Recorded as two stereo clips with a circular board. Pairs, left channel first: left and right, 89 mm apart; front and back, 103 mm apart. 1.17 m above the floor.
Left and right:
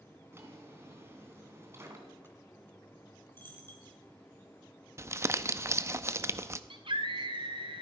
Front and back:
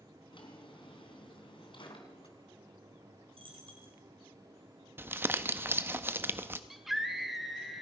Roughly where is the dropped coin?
Behind left.